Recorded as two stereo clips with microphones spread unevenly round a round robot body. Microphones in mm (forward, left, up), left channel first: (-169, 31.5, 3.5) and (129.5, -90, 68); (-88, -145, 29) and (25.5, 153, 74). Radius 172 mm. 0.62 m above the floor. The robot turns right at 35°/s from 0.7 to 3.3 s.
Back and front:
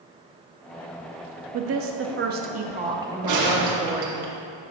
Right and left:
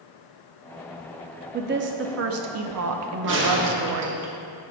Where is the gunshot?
10° left, 1.1 m; by 4.3 s 15° left, 1.1 m.